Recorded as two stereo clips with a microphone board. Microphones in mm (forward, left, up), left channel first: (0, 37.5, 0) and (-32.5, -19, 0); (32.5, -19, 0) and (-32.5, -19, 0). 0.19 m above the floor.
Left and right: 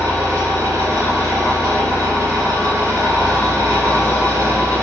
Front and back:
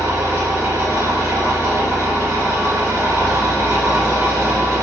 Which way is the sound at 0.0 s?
150° right.